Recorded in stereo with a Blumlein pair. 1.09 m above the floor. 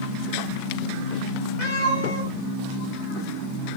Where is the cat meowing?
45° left, 3.5 m.